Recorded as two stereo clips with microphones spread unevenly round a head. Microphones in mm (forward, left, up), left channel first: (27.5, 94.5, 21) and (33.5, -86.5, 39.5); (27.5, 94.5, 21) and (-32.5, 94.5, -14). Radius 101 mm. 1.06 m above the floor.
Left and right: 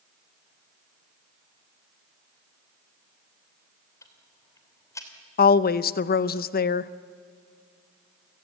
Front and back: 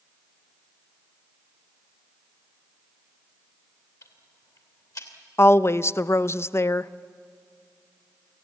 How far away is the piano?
No piano in this recording.